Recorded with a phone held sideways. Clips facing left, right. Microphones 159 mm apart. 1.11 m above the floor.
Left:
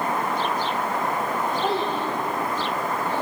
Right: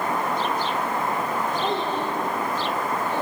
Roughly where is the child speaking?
Centre.